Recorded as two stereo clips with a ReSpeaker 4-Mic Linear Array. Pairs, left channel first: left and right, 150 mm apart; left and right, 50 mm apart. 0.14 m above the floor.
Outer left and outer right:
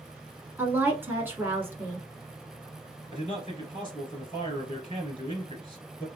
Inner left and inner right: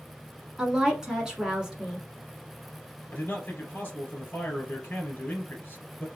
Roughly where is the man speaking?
Left.